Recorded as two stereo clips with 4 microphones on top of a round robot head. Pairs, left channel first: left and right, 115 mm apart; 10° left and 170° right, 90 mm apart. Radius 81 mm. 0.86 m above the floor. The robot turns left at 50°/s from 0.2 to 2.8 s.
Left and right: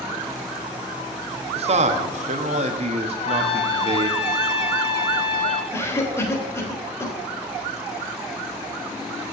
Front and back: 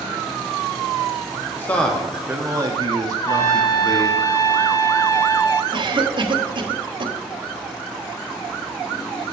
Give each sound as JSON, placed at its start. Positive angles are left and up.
{"t": 1.6, "sound": "a man speaking", "azimuth_deg": -60, "distance_m": 1.1}
{"t": 3.2, "sound": "a trumpet", "azimuth_deg": 60, "distance_m": 1.2}
{"t": 5.7, "sound": "a cough", "azimuth_deg": 160, "distance_m": 1.5}